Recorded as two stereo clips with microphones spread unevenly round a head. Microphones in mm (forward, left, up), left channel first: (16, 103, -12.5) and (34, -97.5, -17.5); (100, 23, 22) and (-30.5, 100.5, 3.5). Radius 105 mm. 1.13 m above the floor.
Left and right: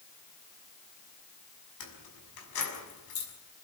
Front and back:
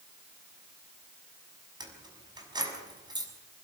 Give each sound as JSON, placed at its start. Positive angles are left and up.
{"t": 1.8, "sound": "keys jangling", "azimuth_deg": 85, "distance_m": 5.5}